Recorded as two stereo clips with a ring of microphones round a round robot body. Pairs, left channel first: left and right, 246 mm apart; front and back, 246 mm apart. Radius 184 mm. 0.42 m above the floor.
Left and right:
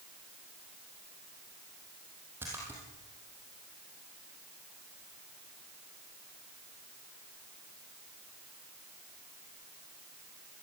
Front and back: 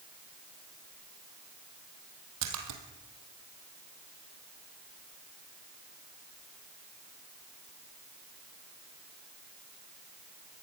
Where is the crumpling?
I don't hear crumpling.